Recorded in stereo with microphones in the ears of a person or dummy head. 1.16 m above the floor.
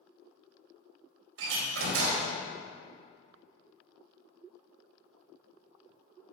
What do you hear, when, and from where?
1.4 s a door slam: 75° right (ahead or behind), 3.5 m